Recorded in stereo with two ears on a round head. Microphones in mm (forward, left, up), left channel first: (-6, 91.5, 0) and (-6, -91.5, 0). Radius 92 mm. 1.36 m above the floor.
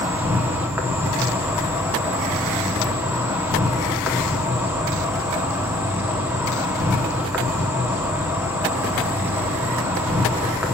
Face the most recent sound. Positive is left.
turn(degrees=-10)  # may be behind; listen again after turning